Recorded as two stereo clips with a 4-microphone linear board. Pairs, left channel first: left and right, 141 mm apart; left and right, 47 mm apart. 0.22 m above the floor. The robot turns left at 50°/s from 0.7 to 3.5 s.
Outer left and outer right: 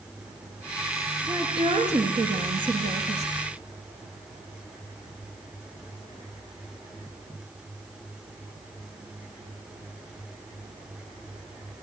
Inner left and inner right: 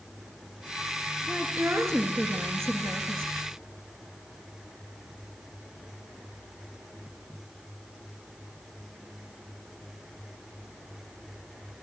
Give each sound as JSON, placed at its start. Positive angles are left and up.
{"t": 1.3, "sound": "a woman speaking", "azimuth_deg": -25, "distance_m": 4.5}